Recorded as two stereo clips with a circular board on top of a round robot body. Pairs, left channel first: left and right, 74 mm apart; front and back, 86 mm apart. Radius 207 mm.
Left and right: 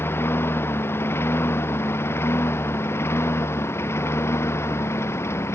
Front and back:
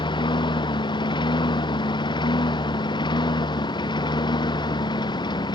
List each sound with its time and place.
0.0 s a lawn mower: 30° left; by 5.6 s 35° left